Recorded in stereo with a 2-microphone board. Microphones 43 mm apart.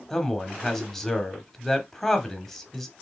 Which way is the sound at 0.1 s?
10° left (ahead or behind).